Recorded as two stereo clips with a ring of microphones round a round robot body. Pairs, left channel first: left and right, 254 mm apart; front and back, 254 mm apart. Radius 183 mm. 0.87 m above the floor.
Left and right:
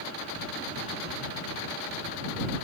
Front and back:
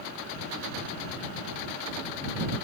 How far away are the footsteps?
I don't hear footsteps.